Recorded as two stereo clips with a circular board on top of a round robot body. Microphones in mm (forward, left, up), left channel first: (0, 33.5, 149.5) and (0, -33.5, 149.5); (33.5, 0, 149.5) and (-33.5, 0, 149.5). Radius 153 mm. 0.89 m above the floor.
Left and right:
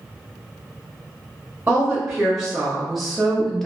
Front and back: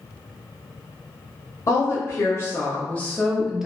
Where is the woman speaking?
15° right, 1.3 m; by 3.7 s 150° left, 0.9 m.